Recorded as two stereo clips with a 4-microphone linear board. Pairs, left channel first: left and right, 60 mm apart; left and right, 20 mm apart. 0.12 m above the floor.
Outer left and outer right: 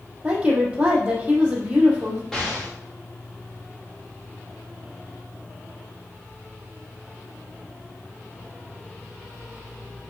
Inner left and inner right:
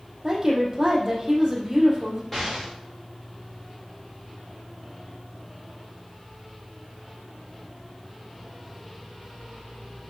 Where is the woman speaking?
20° right (ahead or behind), 3.5 m.